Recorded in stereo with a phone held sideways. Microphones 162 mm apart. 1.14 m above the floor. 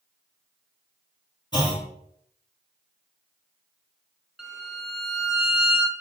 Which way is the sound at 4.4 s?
Centre (ahead or behind).